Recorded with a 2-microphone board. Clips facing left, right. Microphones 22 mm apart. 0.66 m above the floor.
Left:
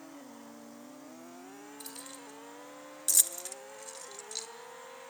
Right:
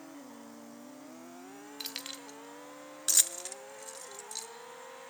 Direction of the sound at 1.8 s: 65° right (ahead or behind).